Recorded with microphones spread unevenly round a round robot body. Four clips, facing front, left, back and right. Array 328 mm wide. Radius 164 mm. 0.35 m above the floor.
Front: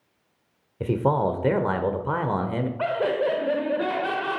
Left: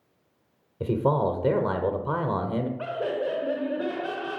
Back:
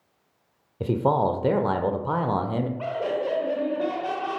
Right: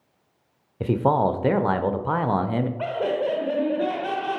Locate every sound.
0.8 s a man speaking: 65° left, 0.8 m
2.8 s laughter: 20° left, 1.0 m